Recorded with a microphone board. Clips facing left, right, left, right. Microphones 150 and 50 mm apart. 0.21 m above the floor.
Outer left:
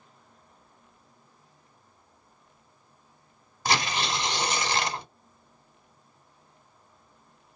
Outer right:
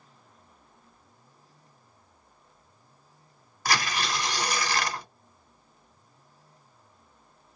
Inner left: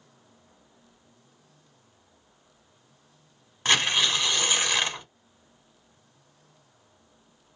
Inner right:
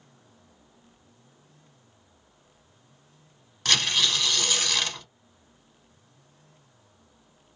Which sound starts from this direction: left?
Tearing paper, at 3.6 s.